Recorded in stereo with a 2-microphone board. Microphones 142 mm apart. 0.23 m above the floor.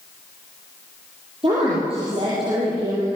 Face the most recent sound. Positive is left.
turn(degrees=-40)  # may be behind; listen again after turning